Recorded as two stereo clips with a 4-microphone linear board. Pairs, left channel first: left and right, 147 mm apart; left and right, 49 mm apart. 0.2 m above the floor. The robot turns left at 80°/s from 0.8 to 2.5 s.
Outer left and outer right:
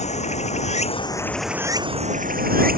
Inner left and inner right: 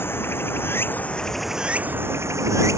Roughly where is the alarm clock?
No alarm clock in this recording.